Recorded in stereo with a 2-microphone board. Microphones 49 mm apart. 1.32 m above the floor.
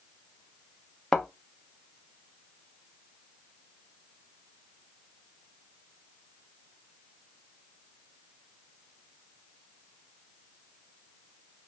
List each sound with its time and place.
1.1 s a thud: 10° left (ahead or behind), 0.7 m